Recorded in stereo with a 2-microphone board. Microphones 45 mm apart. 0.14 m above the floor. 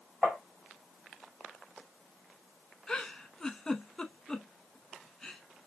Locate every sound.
0.2 s tapping: 30° right (ahead or behind), 2.5 m
2.9 s a giggle: 10° left (ahead or behind), 0.9 m